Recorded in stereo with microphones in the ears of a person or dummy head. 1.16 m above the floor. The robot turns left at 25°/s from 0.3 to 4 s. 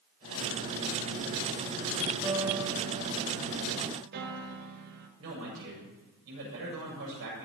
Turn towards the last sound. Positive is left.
turn(degrees=-70)  # may be behind; listen again after turning